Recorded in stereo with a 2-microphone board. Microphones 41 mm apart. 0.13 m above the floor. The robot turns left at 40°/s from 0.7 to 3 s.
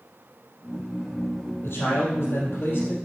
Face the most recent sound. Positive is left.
turn(degrees=45)